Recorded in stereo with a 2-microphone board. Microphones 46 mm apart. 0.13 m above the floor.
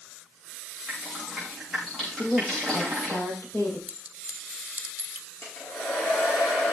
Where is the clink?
30° right (ahead or behind), 1.3 m.